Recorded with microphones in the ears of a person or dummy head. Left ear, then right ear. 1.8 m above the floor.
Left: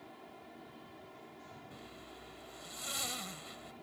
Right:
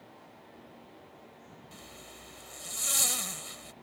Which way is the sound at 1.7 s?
25° right (ahead or behind).